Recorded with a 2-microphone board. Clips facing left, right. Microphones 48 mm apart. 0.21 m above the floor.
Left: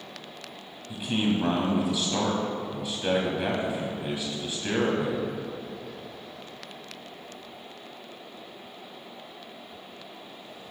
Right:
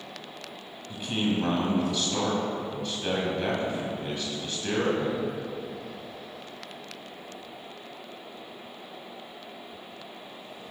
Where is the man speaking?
10° left (ahead or behind), 1.1 m.